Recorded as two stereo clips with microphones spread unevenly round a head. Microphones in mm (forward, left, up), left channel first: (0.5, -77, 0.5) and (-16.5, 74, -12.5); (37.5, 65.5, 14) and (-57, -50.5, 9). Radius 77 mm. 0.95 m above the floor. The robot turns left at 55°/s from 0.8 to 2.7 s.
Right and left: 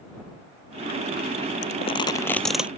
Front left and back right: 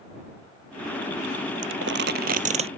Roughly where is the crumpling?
Behind right.